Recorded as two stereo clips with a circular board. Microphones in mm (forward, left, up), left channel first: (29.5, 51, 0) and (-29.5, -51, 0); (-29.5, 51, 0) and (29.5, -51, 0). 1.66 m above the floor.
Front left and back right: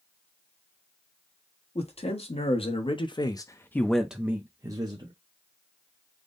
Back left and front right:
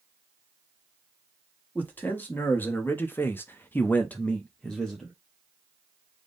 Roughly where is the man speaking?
Ahead left.